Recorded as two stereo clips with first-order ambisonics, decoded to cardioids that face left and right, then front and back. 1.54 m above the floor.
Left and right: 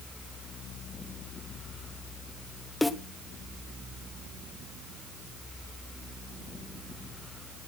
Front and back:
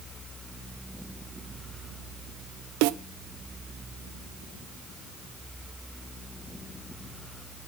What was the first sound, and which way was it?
A snare drum, 175° left.